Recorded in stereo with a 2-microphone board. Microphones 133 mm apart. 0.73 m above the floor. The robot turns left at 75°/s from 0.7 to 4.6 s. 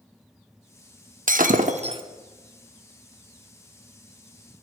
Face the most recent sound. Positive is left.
turn(degrees=25)